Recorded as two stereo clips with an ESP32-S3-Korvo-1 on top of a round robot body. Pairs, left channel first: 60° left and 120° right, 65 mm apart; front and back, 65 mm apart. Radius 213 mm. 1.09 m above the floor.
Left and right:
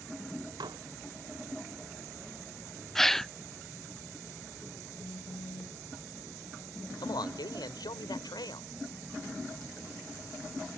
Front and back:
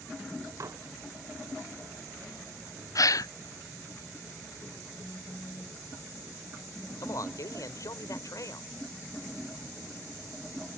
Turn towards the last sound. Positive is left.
turn(degrees=40)